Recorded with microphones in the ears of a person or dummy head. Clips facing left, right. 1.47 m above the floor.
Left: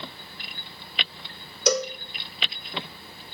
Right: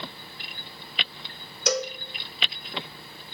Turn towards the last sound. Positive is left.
turn(degrees=85)